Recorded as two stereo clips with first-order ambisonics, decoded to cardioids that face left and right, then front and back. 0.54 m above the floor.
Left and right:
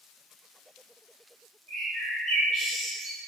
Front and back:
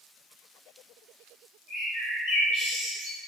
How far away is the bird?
About 1.9 m.